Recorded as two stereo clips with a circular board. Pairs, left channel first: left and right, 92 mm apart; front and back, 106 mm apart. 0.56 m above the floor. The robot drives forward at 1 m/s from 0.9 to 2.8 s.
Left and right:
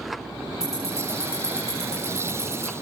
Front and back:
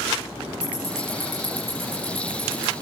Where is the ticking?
145° left, 7.5 m; by 2.7 s 155° left, 9.5 m.